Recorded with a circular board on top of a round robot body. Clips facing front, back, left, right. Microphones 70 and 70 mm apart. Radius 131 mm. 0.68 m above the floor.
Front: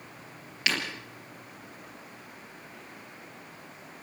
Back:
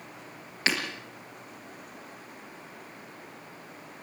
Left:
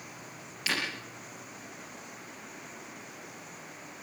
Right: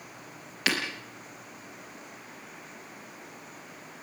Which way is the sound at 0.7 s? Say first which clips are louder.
Back 1 dB, right 4 dB; 125° right.